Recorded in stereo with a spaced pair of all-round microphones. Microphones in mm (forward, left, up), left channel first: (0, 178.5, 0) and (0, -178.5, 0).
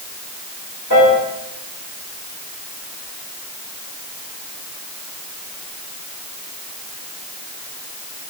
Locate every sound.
0.9 s a piano: 65° left (ahead or behind), 3.5 m